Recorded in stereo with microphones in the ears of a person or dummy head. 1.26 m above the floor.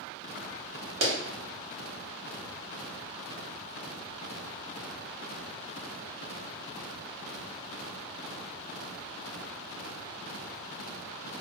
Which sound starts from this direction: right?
A clap, at 1.0 s.